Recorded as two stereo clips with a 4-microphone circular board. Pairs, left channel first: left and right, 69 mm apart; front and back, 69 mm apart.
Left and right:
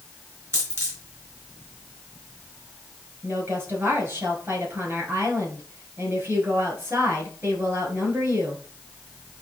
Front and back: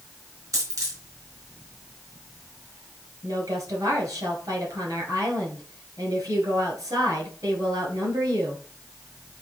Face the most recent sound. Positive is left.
turn(degrees=-145)